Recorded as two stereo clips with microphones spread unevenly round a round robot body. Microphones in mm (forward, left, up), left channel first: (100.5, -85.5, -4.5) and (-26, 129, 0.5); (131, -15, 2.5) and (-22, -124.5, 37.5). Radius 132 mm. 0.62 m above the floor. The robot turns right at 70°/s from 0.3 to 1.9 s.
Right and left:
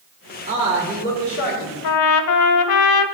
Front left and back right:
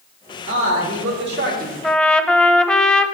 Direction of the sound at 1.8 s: 60° right.